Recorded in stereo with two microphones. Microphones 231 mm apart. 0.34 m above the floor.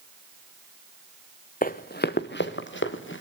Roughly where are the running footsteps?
Left.